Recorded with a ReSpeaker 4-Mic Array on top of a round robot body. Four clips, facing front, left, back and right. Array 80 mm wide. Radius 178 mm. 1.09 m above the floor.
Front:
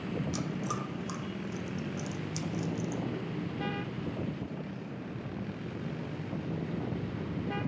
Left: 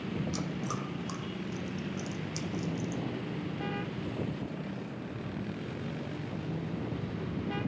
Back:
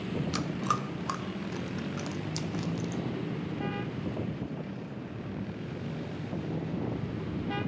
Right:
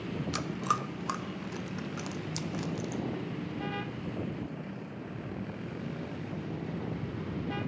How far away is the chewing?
About 0.9 m.